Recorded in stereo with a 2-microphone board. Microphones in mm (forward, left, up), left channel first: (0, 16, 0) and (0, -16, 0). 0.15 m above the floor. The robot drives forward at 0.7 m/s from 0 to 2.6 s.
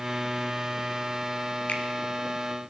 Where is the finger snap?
45° left (ahead or behind), 2.0 m.